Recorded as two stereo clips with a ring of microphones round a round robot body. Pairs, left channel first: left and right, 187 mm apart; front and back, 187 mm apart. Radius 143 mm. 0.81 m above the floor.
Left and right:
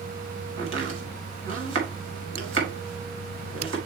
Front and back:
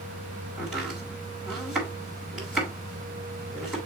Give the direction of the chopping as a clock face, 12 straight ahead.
3 o'clock.